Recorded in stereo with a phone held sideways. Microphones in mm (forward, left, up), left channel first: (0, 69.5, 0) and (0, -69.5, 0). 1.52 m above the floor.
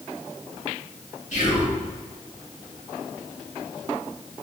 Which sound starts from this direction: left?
Whispering, at 1.3 s.